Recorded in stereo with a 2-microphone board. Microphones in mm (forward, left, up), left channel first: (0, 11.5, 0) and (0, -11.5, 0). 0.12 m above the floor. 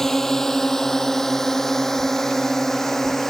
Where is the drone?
20° left (ahead or behind).